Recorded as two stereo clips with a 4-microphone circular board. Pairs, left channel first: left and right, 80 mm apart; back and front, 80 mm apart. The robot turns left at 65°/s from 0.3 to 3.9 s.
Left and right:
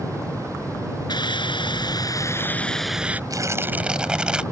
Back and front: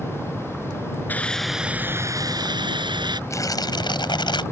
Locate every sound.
1.1 s a hiss: 115° left; by 3.2 s 20° right
3.3 s tearing paper: 130° right; by 4.4 s 170° right